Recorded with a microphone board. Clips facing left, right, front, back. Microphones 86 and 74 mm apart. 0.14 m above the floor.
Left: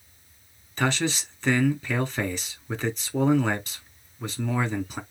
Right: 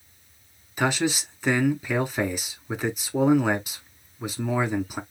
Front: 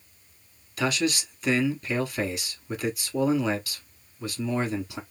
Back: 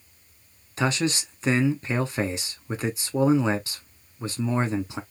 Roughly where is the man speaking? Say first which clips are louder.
Right 2 dB, back 1 dB; behind.